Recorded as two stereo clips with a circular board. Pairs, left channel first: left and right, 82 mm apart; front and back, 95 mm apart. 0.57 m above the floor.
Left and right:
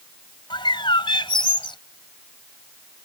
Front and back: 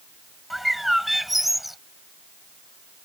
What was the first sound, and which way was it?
A bird, 90° left.